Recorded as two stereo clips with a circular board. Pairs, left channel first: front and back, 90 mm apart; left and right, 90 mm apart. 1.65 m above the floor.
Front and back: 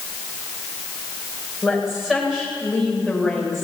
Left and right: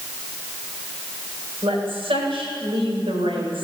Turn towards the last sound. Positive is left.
turn(degrees=-90)